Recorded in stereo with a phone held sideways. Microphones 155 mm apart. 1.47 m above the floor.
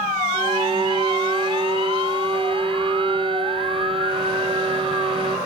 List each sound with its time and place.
0.3 s a violin: 35° right (ahead or behind), 0.7 m